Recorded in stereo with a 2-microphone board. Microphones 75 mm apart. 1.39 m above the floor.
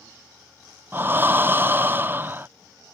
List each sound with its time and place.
0.9 s breathing: 30° right (ahead or behind)